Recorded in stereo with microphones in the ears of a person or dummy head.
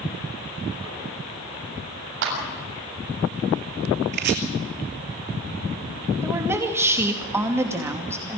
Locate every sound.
2.2 s a clap: 65° right (ahead or behind), 7 m
4.1 s chopping: 55° right (ahead or behind), 2.5 m
6.2 s a woman speaking: 15° right (ahead or behind), 2.5 m